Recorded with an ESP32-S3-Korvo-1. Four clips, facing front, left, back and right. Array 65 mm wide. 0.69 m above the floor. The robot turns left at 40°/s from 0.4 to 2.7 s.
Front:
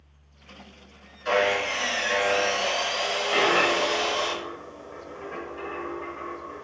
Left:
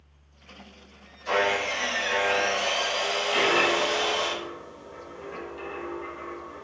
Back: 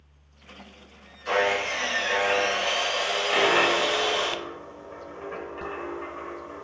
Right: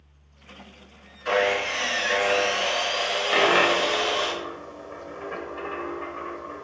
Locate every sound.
1.2 s sawing: 55° right, 4 m; by 4.3 s 115° right, 4 m
3.3 s a dropped coin: 95° right, 1.3 m